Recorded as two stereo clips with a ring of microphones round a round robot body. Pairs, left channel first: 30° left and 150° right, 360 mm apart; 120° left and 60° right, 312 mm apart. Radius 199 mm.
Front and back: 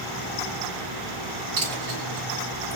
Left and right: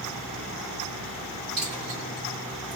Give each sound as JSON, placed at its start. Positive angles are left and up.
{"t": 1.6, "sound": "a dropped coin", "azimuth_deg": -130, "distance_m": 1.1}